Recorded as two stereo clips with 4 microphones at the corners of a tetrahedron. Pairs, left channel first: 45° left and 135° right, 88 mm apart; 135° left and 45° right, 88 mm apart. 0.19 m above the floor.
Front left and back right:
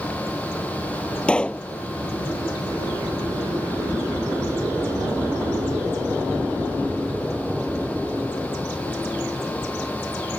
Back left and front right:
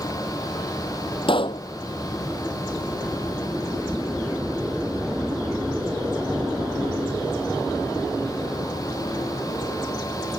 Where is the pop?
120° left.